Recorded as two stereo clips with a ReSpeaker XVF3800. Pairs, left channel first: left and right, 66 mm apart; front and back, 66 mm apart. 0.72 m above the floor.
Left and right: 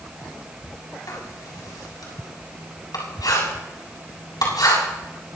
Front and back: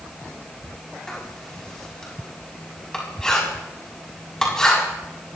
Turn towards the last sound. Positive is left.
turn(degrees=80)